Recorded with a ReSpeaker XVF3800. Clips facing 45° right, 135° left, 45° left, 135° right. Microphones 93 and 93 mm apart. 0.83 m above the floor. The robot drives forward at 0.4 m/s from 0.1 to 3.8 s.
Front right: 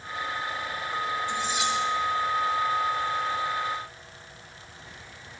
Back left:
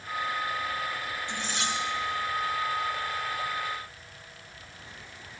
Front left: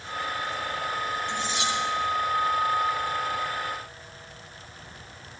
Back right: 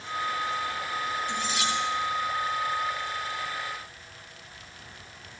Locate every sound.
1.3 s cutlery clinking: 100° left, 4.5 m; by 1.8 s 105° left, 4.5 m